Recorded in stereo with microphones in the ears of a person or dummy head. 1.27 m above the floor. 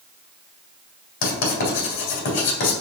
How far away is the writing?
About 3 m.